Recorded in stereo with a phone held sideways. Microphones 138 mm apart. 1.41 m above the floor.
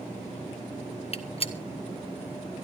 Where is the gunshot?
45° left (ahead or behind), 1.0 m.